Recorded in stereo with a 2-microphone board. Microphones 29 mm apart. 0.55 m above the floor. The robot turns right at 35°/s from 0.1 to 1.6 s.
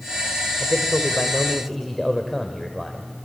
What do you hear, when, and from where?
0.6 s a man speaking: 145° left, 1.7 m; by 3.1 s straight behind, 1.7 m